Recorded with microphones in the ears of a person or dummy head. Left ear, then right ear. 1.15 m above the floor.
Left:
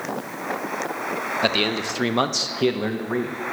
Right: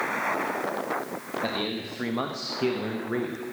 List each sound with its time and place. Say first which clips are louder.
1.4 s a man speaking: left 9 dB; 75° left (ahead or behind), 1.1 m; by 3.4 s centre (ahead or behind), 1.0 m